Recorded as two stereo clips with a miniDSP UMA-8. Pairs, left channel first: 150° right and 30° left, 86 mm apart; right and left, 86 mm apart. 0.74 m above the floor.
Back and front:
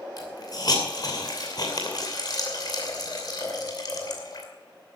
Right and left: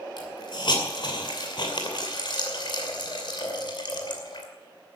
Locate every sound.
0.2 s a hiss: 115° right, 2.5 m